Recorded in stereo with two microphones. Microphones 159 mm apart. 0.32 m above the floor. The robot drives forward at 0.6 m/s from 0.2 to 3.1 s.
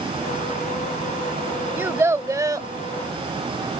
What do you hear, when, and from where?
1.8 s a child speaking: 15° right (ahead or behind); by 2.7 s 20° right (ahead or behind)